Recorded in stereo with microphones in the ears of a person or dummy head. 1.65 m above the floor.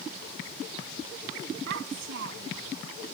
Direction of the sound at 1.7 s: 75° right (ahead or behind).